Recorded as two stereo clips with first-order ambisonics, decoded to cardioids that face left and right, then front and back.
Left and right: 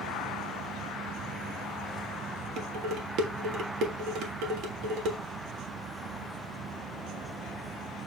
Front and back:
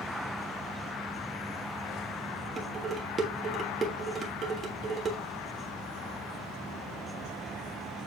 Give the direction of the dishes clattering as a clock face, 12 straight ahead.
4 o'clock.